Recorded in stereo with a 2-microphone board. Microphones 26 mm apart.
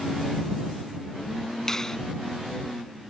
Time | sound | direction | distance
1.7 | a finger snap | 15° left (ahead or behind) | ?